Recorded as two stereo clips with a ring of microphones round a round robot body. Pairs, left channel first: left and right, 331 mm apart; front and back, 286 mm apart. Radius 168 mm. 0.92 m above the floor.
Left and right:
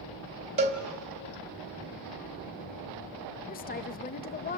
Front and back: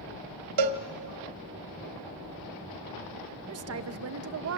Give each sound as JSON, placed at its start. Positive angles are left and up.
{"t": 0.6, "sound": "a cowbell", "azimuth_deg": -160, "distance_m": 1.4}
{"t": 3.5, "sound": "a woman speaking", "azimuth_deg": 150, "distance_m": 1.0}